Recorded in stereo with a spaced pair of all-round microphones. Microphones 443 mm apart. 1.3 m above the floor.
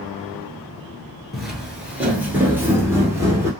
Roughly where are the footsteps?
Centre.